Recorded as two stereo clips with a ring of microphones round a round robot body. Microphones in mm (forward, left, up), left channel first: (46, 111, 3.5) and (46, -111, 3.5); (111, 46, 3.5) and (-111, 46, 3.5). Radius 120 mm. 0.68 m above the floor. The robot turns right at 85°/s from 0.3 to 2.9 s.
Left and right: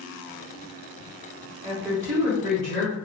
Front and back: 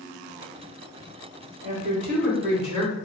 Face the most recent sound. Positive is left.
turn(degrees=-45)